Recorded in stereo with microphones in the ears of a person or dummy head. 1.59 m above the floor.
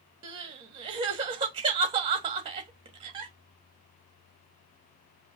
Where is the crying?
30° right (ahead or behind), 1.2 m.